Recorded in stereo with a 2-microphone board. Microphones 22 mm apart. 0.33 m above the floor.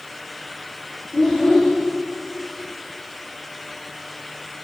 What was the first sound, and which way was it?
A child speaking, 30° left (ahead or behind).